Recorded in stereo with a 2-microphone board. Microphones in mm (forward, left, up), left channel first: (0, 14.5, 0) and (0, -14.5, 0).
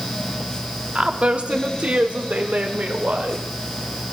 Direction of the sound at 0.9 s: 35° right (ahead or behind).